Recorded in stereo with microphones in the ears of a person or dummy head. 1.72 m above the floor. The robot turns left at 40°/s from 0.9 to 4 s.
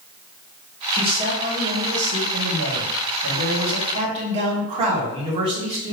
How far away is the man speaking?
About 1.4 m.